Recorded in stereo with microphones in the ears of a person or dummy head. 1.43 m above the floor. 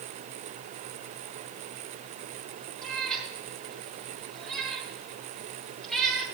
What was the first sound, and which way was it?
A cat meowing, 5° left (ahead or behind).